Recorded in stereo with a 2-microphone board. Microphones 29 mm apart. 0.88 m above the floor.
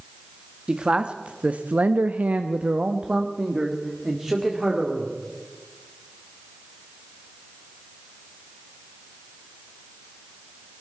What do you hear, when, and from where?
0.7 s a man speaking: 30° right (ahead or behind), 1.1 m; by 5.1 s 15° right (ahead or behind), 2.5 m